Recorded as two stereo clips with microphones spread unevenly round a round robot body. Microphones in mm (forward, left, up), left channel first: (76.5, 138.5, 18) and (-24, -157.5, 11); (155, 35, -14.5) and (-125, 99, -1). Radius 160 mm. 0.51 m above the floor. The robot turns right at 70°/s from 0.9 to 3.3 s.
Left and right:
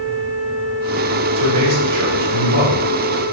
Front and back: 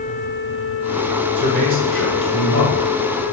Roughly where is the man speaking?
Behind right.